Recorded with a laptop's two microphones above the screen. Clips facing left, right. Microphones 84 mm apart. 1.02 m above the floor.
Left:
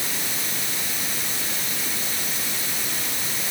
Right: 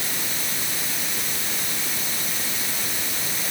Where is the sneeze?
No sneeze in this recording.